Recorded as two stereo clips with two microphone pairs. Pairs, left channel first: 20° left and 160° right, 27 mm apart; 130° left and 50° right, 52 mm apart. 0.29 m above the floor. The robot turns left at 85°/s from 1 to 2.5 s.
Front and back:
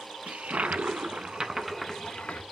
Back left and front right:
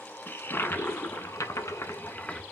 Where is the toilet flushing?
170° left, 0.6 m; by 2.4 s 50° left, 0.6 m.